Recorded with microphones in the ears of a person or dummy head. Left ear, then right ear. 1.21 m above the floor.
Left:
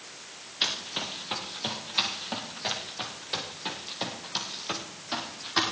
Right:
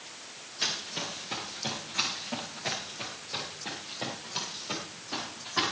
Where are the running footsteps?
35° left (ahead or behind), 5.5 m; by 5.7 s 65° left (ahead or behind), 7 m.